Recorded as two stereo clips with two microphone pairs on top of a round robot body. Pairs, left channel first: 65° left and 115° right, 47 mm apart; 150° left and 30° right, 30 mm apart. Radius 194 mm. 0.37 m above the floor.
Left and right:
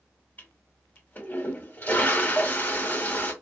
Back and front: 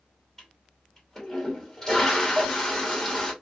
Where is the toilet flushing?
85° left, 2.0 m.